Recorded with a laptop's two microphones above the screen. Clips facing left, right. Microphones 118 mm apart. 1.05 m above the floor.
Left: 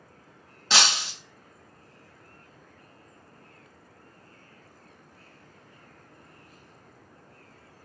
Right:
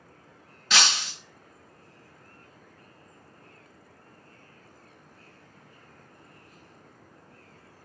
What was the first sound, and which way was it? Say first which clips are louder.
Breaking glass: left 1 dB; 30° left (ahead or behind).